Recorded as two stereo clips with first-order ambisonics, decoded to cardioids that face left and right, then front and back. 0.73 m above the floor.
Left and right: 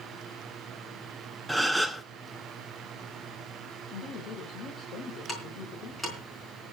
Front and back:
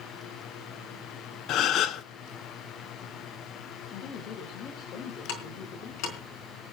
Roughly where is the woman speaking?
Ahead left.